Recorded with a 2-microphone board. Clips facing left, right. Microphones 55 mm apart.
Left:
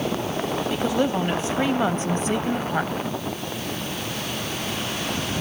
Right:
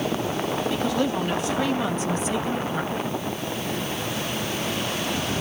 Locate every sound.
0.7 s a woman speaking: 15° left (ahead or behind), 1.6 m; by 2.9 s 50° left (ahead or behind), 1.7 m